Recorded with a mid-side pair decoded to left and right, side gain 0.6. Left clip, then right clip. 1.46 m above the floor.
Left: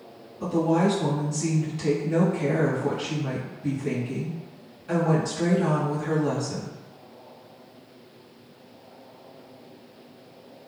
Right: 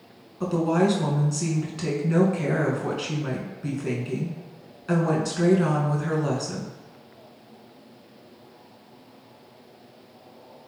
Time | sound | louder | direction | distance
0.4 | a woman speaking | even | 50° right | 1.4 m